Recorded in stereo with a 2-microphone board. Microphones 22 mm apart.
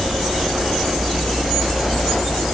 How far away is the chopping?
I don't hear chopping.